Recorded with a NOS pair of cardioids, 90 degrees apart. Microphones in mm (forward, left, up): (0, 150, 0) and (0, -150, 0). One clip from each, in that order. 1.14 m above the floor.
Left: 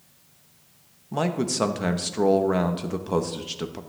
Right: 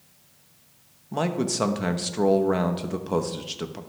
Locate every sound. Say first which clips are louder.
1.1 s a man speaking: even; 5° left, 0.9 m